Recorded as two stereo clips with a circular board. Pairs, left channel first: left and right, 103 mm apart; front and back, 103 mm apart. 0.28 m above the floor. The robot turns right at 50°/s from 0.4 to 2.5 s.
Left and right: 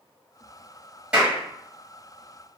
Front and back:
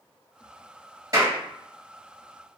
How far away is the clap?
About 1.3 m.